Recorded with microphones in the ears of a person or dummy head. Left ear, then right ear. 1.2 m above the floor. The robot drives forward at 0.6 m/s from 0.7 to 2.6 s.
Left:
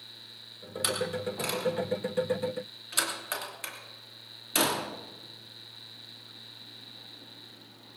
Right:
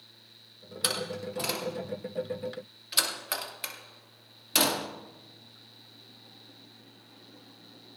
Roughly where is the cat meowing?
I don't hear a cat meowing.